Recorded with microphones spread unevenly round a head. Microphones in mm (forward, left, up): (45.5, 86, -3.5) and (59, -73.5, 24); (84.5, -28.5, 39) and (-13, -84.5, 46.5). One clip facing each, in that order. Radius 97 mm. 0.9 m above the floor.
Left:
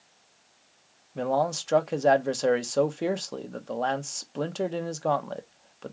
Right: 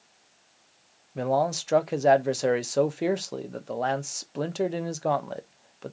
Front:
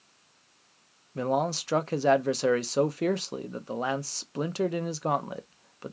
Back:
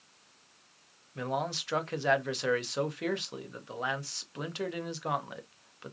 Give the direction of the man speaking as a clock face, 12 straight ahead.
12 o'clock.